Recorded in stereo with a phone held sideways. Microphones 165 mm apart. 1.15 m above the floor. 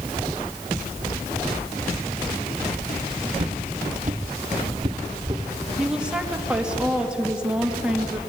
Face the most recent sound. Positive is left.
turn(degrees=-5)  # may be behind; listen again after turning